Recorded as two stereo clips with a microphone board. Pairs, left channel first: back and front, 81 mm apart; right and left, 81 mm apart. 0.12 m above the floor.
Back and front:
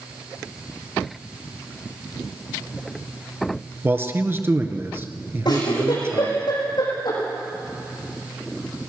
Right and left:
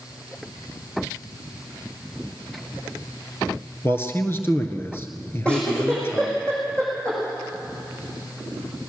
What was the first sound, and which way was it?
A man speaking, 45° right.